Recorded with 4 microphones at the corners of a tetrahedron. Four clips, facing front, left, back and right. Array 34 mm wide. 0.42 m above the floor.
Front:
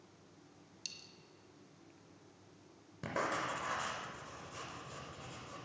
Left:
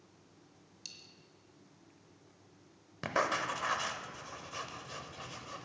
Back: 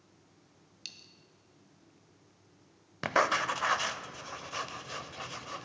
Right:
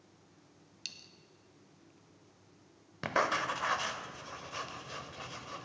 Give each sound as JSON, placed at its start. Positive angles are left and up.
{"t": 0.8, "sound": "a dropped coin", "azimuth_deg": -125, "distance_m": 0.7}
{"t": 3.0, "sound": "writing", "azimuth_deg": -175, "distance_m": 0.5}